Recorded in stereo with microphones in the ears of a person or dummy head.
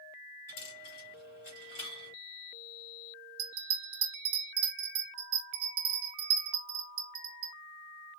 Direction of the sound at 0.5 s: 40° left (ahead or behind).